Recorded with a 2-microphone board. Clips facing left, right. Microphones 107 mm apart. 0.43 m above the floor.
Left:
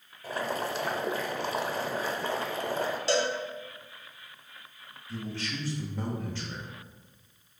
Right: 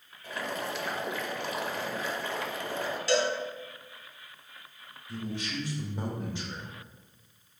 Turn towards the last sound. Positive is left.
turn(degrees=-15)  # may be behind; listen again after turning